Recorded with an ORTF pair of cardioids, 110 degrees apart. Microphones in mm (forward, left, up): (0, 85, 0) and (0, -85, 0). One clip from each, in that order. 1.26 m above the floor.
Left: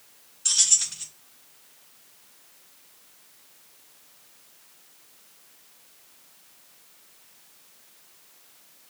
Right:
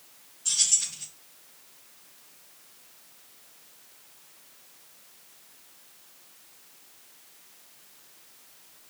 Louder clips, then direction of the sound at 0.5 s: Left 4 dB; 60° left.